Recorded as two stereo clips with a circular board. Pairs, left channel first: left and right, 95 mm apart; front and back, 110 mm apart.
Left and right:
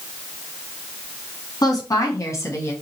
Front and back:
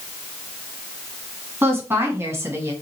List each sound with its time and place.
1.6 s a woman speaking: 115° left, 2 m; by 2.7 s 135° left, 1.6 m